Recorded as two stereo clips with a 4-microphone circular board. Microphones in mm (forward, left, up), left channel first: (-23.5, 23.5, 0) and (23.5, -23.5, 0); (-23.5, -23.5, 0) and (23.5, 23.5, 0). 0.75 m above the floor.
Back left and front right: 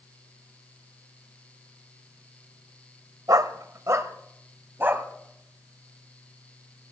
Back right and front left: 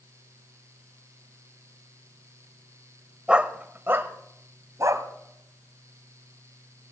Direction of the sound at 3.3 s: 30° right.